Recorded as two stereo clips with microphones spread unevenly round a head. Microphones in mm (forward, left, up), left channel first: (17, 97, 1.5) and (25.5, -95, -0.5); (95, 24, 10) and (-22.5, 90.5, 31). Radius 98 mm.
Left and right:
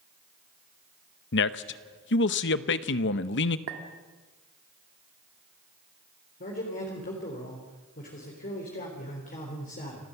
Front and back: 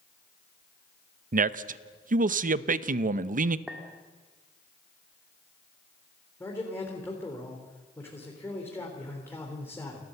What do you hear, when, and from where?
1.3 s a man speaking: 125° left, 0.8 m
3.7 s a clink: 125° right, 1.3 m
6.4 s a man speaking: 45° left, 3.5 m